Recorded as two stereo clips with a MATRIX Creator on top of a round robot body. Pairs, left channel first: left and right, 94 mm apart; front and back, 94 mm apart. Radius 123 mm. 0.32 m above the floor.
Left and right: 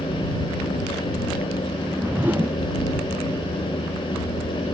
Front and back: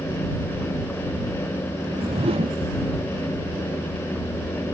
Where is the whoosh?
160° right.